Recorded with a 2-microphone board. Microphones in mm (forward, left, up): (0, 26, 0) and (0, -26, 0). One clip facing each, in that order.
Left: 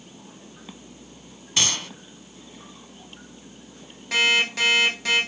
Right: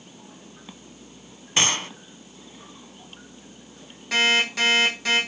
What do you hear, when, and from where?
1.6 s a gunshot: 30° right (ahead or behind), 0.9 m
4.1 s an alarm clock: centre (ahead or behind), 7.5 m